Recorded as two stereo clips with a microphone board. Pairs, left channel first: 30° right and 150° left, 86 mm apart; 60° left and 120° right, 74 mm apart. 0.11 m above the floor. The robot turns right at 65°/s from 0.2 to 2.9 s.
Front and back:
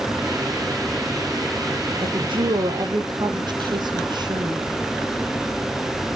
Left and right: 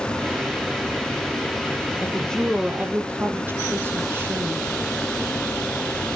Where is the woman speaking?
120° left, 3.5 m; by 4.7 s straight behind, 3.5 m.